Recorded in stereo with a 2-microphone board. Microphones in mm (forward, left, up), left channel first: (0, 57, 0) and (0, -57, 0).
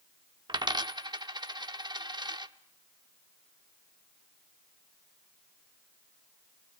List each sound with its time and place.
0.5 s a dropped coin: 40° right (ahead or behind), 0.9 m